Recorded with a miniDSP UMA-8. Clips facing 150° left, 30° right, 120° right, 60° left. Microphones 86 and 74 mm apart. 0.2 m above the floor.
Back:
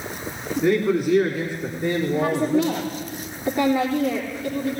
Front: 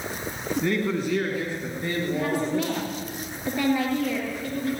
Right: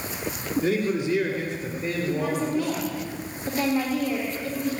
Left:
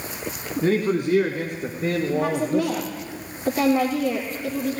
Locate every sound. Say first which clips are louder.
0.6 s a man speaking: back 7 dB, left 4 dB; 70° left, 1.9 m; by 2.8 s 75° left, 5 m
2.1 s a woman speaking: back 5 dB, left 3 dB; 75° left, 4 m